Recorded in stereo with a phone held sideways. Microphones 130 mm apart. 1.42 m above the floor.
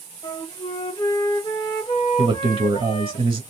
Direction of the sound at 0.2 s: 35° left (ahead or behind).